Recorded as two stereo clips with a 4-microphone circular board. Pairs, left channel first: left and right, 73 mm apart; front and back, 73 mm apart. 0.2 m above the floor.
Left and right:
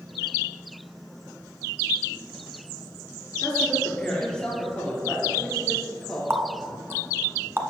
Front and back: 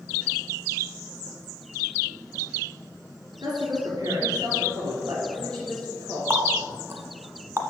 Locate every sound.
3.4 s a woman speaking: 170° left, 3 m
6.3 s a running tap: 140° right, 1.1 m